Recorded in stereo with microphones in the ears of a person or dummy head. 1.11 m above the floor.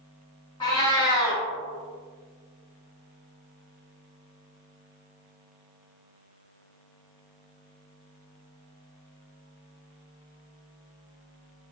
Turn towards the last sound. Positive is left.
turn(degrees=20)  # may be behind; listen again after turning